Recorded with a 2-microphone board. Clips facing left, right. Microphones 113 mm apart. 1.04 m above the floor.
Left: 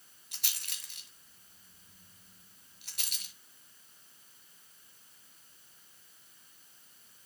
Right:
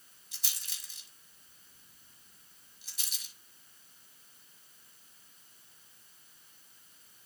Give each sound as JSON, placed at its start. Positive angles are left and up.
{"t": 0.3, "sound": "a rattle", "side_deg": 60, "distance_m": 1.5}